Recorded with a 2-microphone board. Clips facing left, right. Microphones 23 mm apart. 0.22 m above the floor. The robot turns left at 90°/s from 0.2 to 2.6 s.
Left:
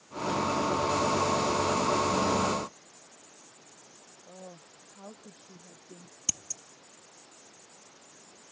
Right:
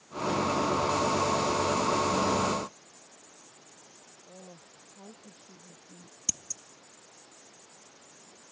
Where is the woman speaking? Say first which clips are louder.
Left 3 dB; 55° left (ahead or behind).